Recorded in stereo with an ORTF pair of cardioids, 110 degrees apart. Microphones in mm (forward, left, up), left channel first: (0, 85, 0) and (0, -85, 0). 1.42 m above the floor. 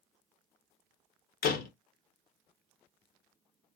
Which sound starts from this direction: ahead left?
A door slam, at 1.4 s.